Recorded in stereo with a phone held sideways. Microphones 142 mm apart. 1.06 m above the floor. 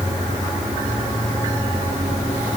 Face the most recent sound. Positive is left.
No sound to turn to.